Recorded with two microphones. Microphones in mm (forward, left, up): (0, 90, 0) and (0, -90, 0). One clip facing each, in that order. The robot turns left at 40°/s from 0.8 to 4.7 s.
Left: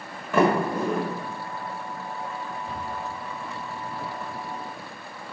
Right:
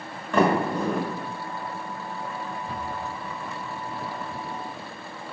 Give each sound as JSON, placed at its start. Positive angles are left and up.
{"t": 0.3, "sound": "a sliding door", "side_deg": 5, "distance_m": 1.6}
{"t": 2.7, "sound": "a cupboard door", "side_deg": 15, "distance_m": 2.5}